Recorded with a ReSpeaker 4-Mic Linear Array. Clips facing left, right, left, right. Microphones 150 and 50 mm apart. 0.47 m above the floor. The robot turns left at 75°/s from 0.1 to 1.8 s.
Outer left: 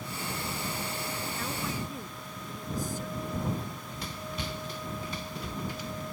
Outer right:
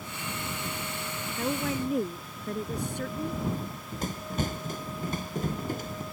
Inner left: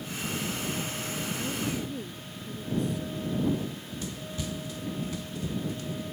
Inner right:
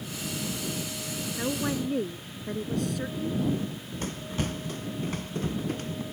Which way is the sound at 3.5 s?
45° right (ahead or behind).